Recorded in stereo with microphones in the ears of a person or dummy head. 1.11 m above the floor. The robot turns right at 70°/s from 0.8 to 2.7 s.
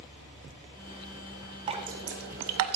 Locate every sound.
1.7 s dripping: 25° right (ahead or behind), 1.3 m; by 2.8 s 80° right, 1.3 m